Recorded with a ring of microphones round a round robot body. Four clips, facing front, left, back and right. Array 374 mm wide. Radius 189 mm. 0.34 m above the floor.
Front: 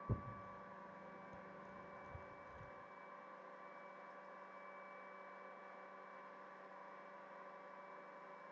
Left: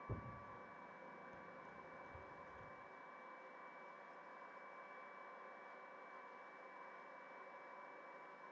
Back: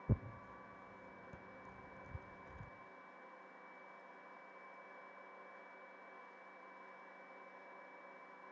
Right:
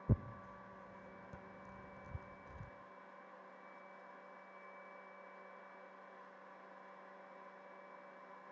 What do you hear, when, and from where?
0.1 s tearing paper: 115° right, 0.8 m